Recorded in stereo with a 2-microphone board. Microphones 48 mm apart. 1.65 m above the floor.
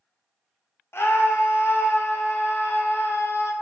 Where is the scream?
55° left (ahead or behind), 0.7 m.